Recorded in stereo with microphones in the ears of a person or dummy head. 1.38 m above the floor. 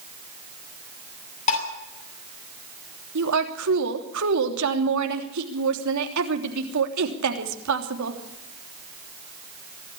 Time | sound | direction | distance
1.5 | dishes clattering | 50° left (ahead or behind) | 7.5 m
3.1 | a woman speaking | 75° right (ahead or behind) | 3 m